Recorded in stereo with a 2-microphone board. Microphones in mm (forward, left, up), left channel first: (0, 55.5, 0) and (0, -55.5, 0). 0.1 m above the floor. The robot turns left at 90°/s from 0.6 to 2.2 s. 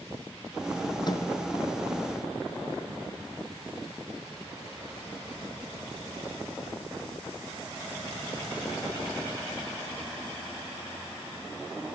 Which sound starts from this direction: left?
A microwave, at 1.0 s.